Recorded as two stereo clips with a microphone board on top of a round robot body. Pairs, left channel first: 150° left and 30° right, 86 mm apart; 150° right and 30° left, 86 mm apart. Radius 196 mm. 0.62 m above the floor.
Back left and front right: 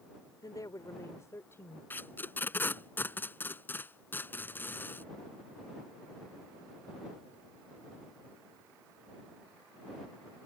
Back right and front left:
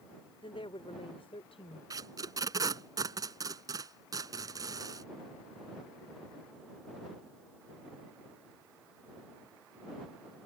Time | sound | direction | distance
0.4 | a woman speaking | 165° right | ?
1.9 | tape being pulled | 80° left | ?